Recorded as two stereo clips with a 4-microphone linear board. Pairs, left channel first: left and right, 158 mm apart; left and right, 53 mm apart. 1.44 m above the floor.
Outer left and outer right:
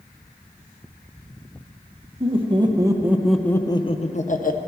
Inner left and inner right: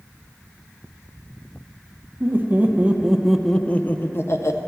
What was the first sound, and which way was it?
Laughter, 40° right (ahead or behind).